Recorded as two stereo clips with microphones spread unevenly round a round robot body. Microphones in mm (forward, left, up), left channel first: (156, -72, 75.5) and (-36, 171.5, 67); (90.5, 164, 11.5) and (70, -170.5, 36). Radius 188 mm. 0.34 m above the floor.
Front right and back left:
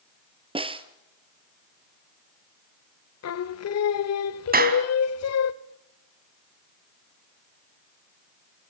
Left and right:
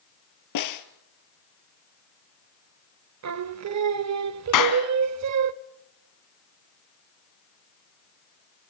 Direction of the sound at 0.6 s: 55° left.